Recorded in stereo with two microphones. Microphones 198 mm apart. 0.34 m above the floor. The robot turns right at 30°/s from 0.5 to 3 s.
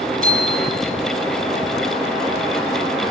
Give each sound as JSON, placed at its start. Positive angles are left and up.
{"t": 0.2, "sound": "a bicycle bell", "side_deg": -45, "distance_m": 6.0}